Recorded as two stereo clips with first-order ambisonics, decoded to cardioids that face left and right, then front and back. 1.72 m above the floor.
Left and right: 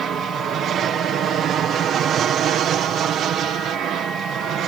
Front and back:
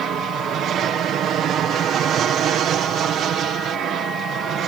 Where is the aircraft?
140° right; by 4.7 s 135° right.